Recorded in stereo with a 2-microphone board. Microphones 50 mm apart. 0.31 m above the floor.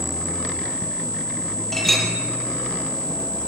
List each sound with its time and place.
1.7 s a clink: 5° left (ahead or behind), 7 m